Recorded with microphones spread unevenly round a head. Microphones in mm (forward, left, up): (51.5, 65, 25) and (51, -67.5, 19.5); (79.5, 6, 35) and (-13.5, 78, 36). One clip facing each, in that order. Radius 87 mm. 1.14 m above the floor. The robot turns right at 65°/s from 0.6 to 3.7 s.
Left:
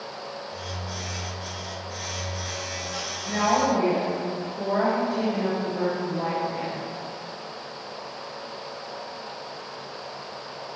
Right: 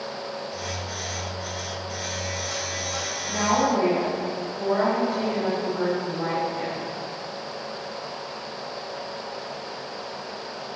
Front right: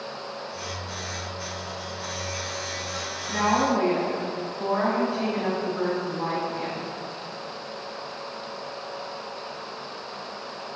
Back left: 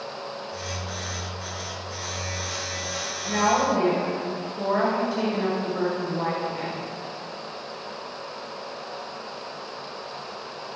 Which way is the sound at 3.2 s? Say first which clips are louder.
Even, back left 1 dB; 120° left.